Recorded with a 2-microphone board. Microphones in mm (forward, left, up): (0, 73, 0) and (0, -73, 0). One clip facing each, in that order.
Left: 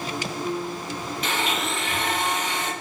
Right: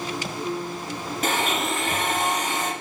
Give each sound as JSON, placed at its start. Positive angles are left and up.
{"t": 1.2, "sound": "a blender", "side_deg": -45, "distance_m": 5.0}